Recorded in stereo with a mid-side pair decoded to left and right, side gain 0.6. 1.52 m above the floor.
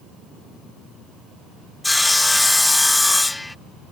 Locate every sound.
1.8 s sawing: 10° left